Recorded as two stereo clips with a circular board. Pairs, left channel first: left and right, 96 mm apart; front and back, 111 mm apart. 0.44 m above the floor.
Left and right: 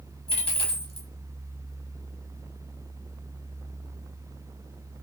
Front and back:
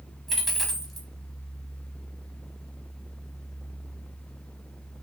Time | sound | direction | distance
0.3 | a dropped coin | 90° left | 0.6 m